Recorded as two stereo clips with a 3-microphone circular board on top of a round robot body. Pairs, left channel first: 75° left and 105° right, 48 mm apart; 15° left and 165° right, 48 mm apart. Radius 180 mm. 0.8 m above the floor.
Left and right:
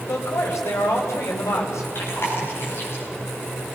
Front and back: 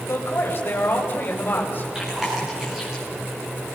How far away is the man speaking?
About 5 m.